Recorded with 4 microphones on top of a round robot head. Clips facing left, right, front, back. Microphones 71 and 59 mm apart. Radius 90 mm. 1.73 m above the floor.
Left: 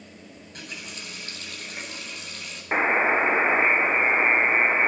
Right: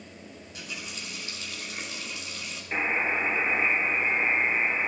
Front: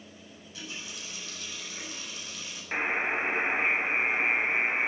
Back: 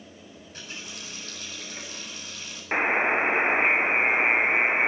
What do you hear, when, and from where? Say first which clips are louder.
0.4 s a running tap: left 1 dB, even; 135° left, 8.5 m
2.7 s a buzzer: left 7 dB, back 6 dB; 125° left, 0.8 m